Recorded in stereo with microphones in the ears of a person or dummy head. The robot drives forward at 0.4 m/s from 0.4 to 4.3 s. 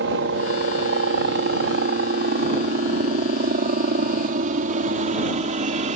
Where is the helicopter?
60° right (ahead or behind); by 6.0 s 40° right (ahead or behind).